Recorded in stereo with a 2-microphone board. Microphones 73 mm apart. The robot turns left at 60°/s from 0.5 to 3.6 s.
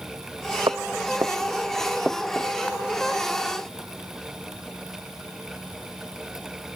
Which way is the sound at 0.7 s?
80° right.